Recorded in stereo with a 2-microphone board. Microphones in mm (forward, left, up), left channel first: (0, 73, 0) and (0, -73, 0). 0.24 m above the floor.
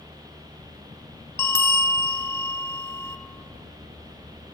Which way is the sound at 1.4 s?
15° left (ahead or behind).